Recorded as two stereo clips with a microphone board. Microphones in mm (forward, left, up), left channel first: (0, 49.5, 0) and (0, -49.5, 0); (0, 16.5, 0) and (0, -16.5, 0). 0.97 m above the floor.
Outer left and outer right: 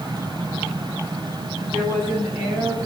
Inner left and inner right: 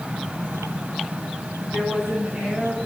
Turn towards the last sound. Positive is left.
turn(degrees=-25)  # may be behind; listen again after turning